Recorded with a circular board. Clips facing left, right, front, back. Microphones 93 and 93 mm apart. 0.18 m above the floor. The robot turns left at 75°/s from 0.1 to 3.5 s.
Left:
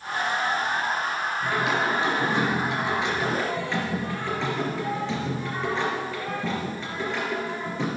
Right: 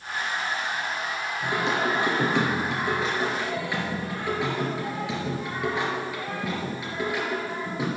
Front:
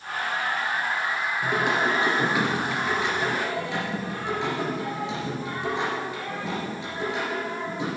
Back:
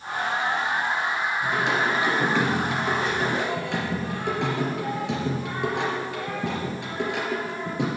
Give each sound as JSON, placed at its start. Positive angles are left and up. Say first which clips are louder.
{"t": 1.4, "sound": "singing", "louder": "even, front 1 dB", "azimuth_deg": -10, "distance_m": 3.5}